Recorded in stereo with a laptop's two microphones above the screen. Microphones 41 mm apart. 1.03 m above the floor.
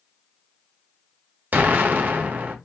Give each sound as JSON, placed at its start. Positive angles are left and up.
{"t": 1.5, "sound": "an explosion", "side_deg": -45, "distance_m": 0.9}